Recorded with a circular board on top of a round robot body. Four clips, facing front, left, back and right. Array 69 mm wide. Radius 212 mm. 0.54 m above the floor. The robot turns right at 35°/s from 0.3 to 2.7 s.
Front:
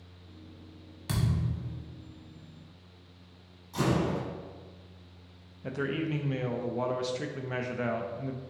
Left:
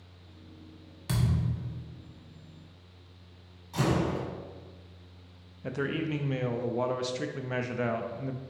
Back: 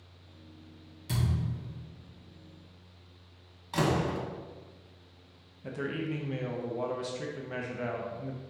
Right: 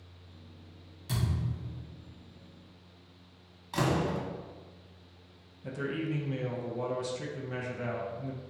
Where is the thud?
45° left, 1.5 m; by 1.8 s 70° left, 1.5 m.